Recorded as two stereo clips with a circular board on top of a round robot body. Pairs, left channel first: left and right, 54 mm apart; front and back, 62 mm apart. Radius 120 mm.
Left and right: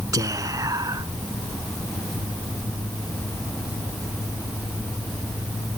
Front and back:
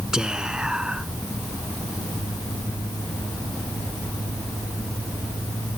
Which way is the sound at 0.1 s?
100° right.